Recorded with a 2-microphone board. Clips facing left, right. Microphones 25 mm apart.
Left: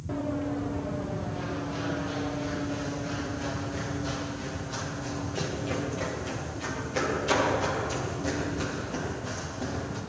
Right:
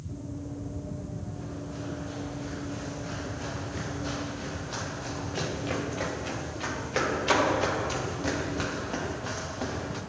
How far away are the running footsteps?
About 2.5 m.